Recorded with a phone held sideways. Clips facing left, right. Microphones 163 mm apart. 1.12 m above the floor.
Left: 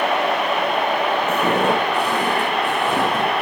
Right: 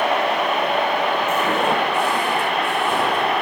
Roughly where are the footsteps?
Left.